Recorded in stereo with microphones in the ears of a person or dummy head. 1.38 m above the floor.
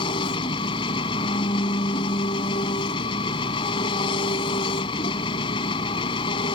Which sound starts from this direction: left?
An engine running, at 0.0 s.